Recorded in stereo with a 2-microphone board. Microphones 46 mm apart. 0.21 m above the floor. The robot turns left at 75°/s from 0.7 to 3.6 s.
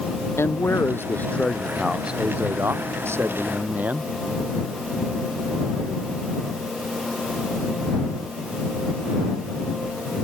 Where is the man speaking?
80° left; by 4.1 s 135° right.